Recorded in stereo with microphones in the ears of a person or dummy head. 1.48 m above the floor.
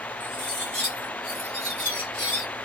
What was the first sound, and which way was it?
Cutlery clinking, 10° left (ahead or behind).